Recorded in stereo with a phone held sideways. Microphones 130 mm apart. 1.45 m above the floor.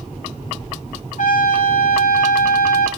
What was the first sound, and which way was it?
A trumpet, 65° left (ahead or behind).